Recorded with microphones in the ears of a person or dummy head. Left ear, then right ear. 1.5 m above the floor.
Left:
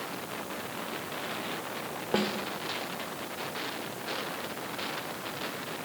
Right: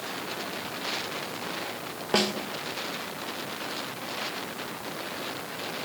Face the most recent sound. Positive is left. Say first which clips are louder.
# right 5 dB
turn(degrees=-30)  # may be behind; listen again after turning